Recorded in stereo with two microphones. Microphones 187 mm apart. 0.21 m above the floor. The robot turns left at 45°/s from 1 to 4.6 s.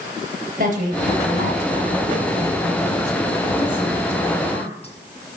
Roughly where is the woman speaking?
Ahead right.